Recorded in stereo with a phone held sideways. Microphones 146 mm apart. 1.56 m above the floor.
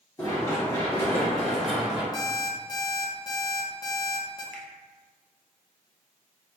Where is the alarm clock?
30° left (ahead or behind), 0.8 m.